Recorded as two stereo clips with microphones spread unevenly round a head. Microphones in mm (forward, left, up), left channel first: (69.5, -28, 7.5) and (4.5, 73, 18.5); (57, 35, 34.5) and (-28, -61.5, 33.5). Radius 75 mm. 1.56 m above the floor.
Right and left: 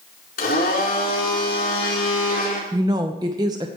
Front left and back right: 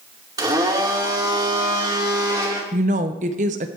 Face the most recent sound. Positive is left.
turn(degrees=-170)